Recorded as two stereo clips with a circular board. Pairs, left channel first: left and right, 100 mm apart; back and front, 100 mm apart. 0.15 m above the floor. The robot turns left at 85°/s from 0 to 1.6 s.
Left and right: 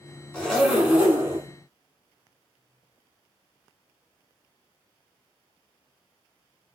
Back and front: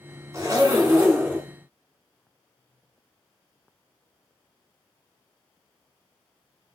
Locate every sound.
0.3 s a zipper: 20° left, 1.3 m; by 1.5 s 75° right, 1.3 m